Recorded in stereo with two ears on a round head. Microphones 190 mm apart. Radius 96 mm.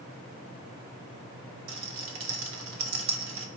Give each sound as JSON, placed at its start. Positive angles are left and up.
{"t": 1.7, "sound": "a rattle", "side_deg": -65, "distance_m": 1.3}